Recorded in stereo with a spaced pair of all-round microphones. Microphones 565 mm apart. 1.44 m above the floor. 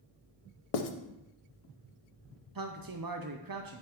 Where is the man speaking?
40° right (ahead or behind), 0.6 m.